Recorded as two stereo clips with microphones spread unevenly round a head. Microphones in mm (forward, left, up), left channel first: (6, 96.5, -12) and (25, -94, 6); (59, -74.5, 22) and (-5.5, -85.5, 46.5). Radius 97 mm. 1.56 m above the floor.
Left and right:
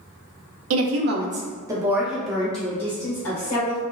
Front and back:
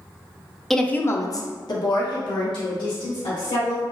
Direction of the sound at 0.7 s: 80° right.